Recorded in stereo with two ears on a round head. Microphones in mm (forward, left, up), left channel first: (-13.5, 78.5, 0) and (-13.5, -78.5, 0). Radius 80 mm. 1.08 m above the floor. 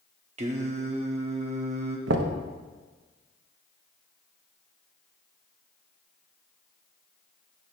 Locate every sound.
0.4 s singing: 35° right (ahead or behind), 0.8 m
2.1 s knocking: 80° right, 0.7 m